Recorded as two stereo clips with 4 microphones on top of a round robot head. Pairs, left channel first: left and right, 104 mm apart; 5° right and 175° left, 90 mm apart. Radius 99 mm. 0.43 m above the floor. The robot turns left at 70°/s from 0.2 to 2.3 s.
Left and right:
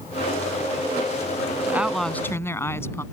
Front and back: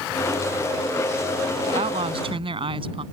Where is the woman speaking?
160° right; by 3.0 s 155° left.